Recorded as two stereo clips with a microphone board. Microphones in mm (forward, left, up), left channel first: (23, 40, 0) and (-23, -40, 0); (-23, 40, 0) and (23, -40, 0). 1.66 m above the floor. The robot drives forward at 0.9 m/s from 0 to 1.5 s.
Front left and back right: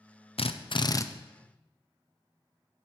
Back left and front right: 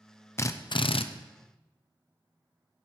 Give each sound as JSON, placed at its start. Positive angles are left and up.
{"t": 0.4, "sound": "a drill", "azimuth_deg": 60, "distance_m": 0.6}